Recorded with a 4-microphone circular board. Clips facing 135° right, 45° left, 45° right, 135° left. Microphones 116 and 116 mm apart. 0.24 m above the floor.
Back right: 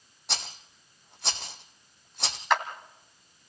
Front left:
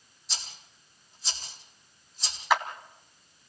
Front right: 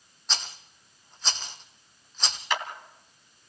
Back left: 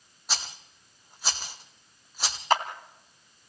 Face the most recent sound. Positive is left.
turn(degrees=130)